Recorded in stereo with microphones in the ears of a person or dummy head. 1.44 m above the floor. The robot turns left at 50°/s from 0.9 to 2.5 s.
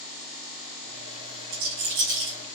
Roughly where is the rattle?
Right.